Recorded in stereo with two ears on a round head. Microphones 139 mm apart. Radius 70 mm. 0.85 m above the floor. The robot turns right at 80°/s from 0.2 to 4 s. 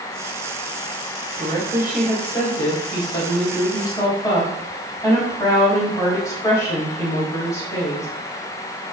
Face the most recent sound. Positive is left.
turn(degrees=155)